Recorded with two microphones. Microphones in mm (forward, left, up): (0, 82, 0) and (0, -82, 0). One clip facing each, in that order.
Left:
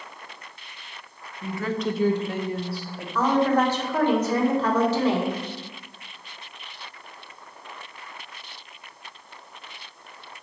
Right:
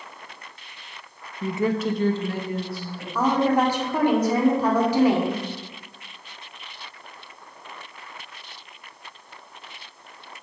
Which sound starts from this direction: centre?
A woman speaking, at 3.1 s.